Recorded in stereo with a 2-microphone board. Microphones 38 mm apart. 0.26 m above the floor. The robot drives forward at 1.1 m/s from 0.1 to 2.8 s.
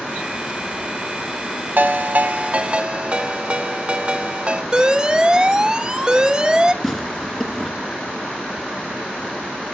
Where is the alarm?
20° right (ahead or behind), 1.4 m.